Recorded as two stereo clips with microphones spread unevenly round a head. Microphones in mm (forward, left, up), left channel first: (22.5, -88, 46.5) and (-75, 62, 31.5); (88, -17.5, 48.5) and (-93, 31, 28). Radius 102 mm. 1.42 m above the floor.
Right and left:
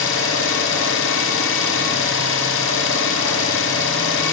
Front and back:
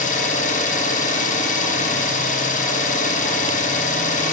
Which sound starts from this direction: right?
An engine running, at 0.0 s.